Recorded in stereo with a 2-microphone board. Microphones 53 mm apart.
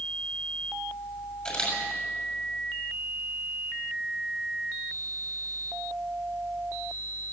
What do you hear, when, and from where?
1.4 s a camera shutter: 20° left (ahead or behind), 6.5 m